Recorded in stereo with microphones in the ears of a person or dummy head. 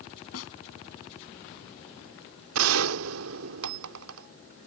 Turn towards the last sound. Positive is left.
turn(degrees=-85)